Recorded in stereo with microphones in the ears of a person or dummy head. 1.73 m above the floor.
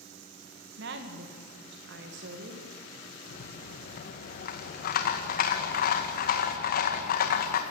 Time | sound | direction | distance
0.8 | a woman speaking | 60° right (ahead or behind) | 2.5 m
3.3 | a rattle | 55° left (ahead or behind) | 2 m